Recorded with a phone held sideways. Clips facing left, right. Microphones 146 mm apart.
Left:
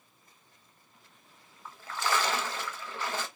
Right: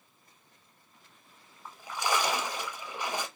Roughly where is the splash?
Centre.